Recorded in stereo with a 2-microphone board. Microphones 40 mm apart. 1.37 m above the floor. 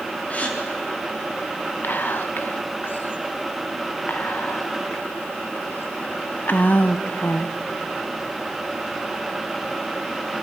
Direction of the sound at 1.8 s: 50° left (ahead or behind).